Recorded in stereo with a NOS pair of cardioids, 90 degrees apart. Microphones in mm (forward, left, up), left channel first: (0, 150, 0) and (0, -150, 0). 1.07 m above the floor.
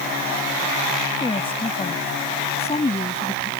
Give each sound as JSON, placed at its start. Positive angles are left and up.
{"t": 1.2, "sound": "a woman speaking", "azimuth_deg": 15}